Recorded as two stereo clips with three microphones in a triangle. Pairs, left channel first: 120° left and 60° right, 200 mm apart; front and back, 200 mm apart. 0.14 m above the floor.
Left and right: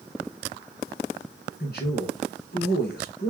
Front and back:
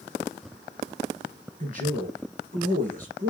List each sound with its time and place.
1.6 s a man speaking: 145° left, 2 m